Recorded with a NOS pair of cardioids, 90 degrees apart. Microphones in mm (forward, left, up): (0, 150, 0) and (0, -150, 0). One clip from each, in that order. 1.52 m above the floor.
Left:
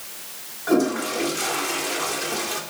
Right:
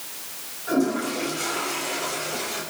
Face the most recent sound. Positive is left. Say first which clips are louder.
# left 3 dB
turn(degrees=55)